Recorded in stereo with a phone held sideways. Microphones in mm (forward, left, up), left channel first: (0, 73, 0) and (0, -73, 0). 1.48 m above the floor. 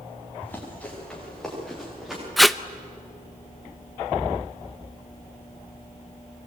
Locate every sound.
0.4 s running footsteps: 10° left (ahead or behind), 9.5 m; by 2.2 s 5° right (ahead or behind), 10.5 m
2.4 s tape being pulled: centre (ahead or behind), 0.7 m